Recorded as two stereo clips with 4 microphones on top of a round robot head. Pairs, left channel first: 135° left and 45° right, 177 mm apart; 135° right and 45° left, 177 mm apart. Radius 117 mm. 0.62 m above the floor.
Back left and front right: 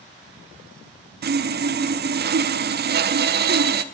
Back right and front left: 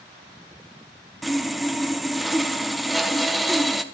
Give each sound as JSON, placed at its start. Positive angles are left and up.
{"t": 1.2, "sound": "sawing", "azimuth_deg": -45, "distance_m": 0.6}